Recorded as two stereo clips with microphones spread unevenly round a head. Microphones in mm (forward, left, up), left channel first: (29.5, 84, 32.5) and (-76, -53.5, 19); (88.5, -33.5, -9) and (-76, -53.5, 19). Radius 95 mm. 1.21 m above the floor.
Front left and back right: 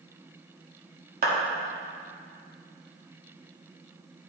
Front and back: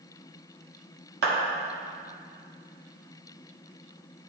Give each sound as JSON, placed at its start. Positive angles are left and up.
{"t": 1.2, "sound": "a clap", "azimuth_deg": -170, "distance_m": 1.8}